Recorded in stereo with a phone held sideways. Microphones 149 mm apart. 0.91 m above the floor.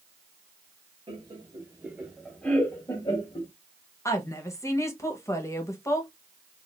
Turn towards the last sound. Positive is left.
turn(degrees=20)  # may be behind; listen again after turning